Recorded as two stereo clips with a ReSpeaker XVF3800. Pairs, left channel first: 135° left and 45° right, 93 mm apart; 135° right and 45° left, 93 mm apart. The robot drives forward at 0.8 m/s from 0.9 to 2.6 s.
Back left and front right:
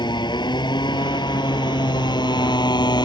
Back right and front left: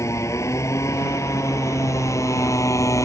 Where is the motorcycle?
170° left.